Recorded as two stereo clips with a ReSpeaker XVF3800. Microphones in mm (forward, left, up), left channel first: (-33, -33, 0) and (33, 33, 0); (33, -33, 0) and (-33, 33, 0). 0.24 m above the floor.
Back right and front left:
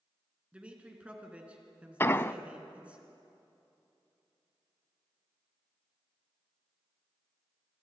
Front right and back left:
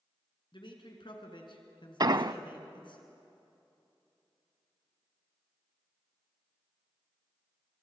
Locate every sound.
0.5 s a man speaking: 30° right, 3.5 m
2.0 s an explosion: 165° left, 0.5 m